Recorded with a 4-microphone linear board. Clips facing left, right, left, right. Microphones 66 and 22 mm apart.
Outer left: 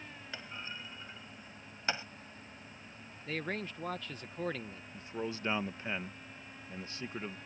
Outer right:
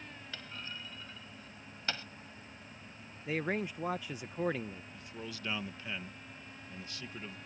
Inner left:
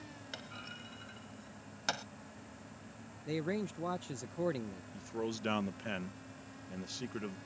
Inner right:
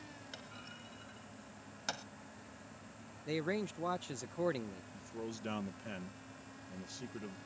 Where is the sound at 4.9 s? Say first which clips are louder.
Outer left 6 dB, inner left 7 dB; 30° left (ahead or behind).